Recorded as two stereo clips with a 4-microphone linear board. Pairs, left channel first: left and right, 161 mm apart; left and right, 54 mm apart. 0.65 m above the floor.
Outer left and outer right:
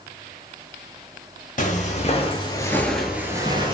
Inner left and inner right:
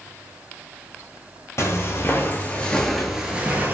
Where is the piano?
I don't hear a piano.